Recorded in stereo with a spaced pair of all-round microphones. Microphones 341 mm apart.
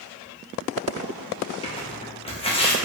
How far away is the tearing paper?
About 0.5 m.